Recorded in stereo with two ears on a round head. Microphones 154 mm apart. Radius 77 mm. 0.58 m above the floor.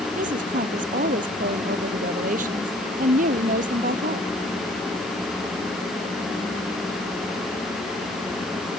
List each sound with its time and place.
0.2 s a woman speaking: 50° right (ahead or behind)